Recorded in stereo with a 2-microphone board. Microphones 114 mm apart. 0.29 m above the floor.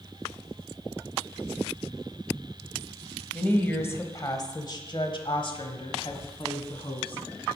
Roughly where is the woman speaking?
Centre.